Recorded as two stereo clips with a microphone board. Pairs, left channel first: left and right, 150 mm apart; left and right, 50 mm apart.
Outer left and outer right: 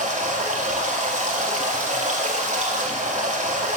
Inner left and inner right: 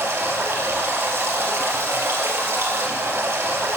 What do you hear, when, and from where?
0.0 s running water: 50° right (ahead or behind), 1.6 m